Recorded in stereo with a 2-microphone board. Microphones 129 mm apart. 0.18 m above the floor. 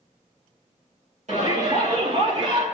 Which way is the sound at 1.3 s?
70° right (ahead or behind).